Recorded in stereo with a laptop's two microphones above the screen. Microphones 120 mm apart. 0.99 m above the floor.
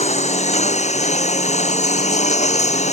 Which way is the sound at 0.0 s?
70° left (ahead or behind).